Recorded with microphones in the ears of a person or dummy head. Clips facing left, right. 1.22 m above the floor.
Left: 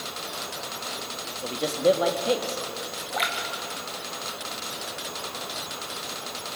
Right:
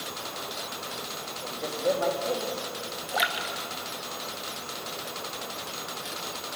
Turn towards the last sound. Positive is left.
turn(degrees=-15)  # may be behind; listen again after turning